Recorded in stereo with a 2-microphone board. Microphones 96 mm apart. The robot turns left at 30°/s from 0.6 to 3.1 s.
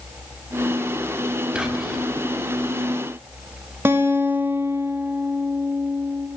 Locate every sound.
1.6 s whispering: 10° right (ahead or behind), 0.5 m; by 2.0 s centre (ahead or behind), 0.5 m
3.9 s a guitar: 25° right (ahead or behind), 0.6 m